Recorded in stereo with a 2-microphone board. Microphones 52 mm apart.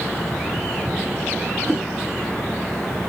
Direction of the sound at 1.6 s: 15° left (ahead or behind).